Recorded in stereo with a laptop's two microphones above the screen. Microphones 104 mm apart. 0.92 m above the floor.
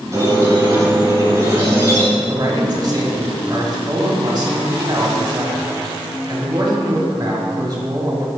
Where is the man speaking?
40° right (ahead or behind), 1.7 m.